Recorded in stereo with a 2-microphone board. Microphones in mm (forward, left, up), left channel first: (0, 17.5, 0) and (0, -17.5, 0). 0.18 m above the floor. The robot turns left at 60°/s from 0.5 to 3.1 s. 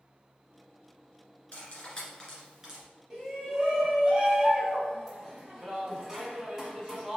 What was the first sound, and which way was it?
Cutlery clinking, 40° left (ahead or behind).